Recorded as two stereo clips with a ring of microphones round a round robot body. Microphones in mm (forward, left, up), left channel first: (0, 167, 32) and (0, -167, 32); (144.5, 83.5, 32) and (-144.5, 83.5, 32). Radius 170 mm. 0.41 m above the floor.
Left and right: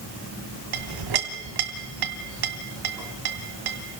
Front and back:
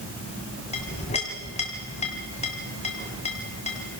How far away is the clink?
About 2.5 m.